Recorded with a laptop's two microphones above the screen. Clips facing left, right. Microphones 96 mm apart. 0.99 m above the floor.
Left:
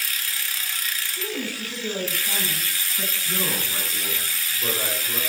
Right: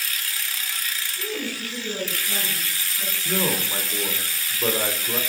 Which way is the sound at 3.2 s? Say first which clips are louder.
Right 6 dB; 40° right (ahead or behind).